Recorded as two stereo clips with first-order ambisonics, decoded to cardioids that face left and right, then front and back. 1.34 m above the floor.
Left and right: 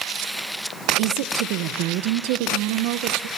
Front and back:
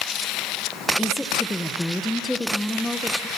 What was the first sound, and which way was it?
A woman speaking, 85° right.